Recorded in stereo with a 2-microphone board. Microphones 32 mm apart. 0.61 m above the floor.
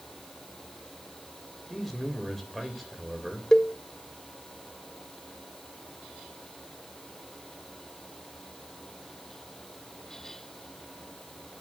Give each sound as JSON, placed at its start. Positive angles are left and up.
{"t": 1.7, "sound": "a man speaking", "side_deg": 0, "distance_m": 2.5}
{"t": 3.5, "sound": "a cowbell", "side_deg": 20, "distance_m": 0.8}